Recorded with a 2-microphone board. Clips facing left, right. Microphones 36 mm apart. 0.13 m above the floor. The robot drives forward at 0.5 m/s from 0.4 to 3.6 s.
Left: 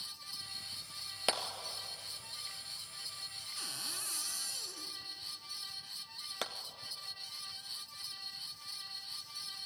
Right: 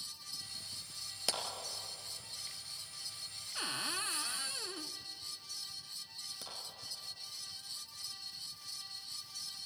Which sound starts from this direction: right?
A cupboard door, at 3.5 s.